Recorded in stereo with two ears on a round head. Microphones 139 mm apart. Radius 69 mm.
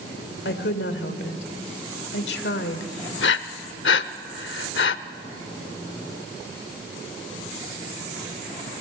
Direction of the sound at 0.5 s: 75° left (ahead or behind).